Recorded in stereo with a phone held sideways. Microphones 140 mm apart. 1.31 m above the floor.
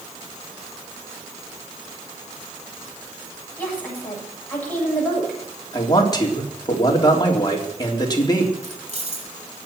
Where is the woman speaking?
10° left (ahead or behind), 8 m.